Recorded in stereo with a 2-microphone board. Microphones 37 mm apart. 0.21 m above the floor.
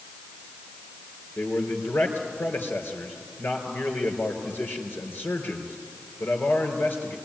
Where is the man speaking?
60° left (ahead or behind), 4 m.